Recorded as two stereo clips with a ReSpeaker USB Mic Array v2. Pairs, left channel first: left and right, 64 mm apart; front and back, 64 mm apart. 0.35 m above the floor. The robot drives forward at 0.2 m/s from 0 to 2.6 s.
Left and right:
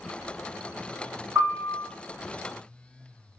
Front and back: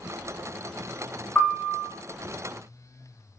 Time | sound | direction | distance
1.4 | a piano | 70° right | 1.6 m